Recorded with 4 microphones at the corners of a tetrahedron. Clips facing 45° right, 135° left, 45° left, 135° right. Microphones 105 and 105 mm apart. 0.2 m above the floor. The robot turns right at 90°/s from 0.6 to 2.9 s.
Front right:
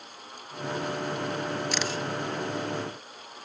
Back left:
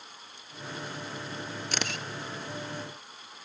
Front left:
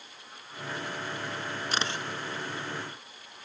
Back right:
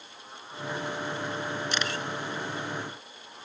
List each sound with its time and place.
1.7 s a camera shutter: 95° left, 0.7 m; by 2.0 s 125° left, 0.7 m